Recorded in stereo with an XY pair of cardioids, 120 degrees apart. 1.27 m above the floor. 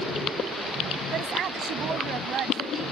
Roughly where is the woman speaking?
Ahead right.